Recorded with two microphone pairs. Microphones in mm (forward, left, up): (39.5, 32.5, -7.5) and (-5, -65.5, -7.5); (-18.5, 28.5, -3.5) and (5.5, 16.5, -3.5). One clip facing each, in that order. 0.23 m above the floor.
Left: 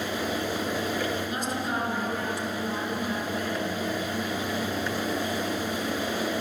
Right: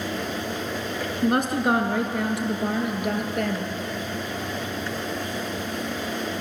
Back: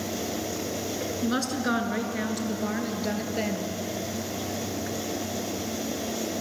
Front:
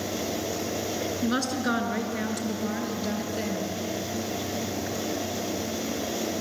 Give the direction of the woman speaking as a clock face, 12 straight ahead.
4 o'clock.